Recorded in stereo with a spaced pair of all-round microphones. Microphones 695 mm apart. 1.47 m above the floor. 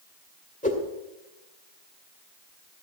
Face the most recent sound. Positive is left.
turn(degrees=10)  # may be behind; listen again after turning